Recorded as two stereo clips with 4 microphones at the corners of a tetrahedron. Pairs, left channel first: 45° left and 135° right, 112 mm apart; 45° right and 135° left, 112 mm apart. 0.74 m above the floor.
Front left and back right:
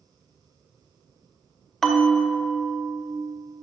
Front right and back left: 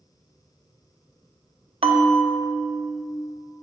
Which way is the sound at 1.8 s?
130° left.